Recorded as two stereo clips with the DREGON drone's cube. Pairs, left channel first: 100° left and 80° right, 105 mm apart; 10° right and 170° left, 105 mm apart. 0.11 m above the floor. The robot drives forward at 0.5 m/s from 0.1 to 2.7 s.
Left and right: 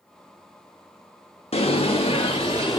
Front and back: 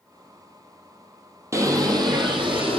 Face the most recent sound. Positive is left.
turn(degrees=140)